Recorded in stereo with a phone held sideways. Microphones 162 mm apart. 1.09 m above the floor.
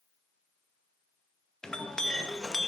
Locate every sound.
1.6 s a clink: 5° left (ahead or behind), 0.6 m